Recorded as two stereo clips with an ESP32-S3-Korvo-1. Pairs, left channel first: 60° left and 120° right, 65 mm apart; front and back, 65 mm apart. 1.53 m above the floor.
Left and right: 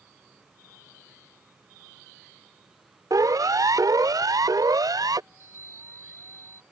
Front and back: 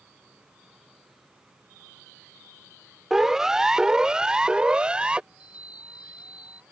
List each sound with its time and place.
3.1 s a siren: 95° right; by 5.2 s 105° right
5.3 s a chime: 110° left